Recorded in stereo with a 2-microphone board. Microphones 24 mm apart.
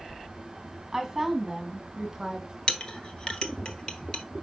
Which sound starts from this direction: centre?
A woman speaking, at 0.9 s.